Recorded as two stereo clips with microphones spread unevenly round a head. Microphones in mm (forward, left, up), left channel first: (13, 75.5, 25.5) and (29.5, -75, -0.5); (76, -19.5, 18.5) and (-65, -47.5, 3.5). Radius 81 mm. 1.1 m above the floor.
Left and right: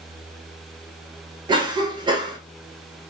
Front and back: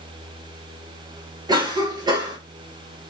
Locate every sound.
1.5 s a cough: 125° right, 1.0 m